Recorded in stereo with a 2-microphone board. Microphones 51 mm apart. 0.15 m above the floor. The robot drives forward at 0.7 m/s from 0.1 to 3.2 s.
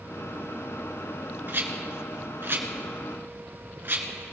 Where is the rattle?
45° right (ahead or behind), 1.7 m.